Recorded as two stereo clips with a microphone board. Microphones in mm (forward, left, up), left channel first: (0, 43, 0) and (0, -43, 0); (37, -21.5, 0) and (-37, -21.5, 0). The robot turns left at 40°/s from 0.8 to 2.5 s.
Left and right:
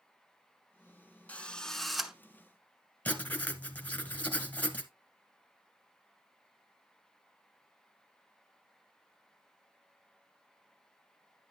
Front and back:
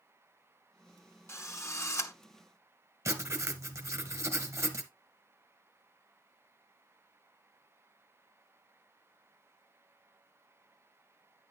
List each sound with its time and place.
1.3 s a drill: 25° left, 0.9 m; by 2.1 s 10° right, 0.9 m
3.0 s writing: 155° left, 1.3 m